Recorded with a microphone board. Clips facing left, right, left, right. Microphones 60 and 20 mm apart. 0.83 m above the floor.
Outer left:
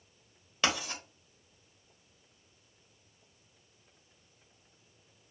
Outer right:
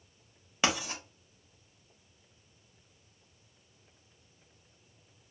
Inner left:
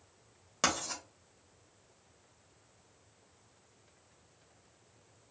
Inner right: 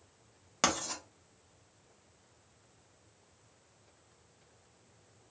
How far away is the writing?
About 1.0 m.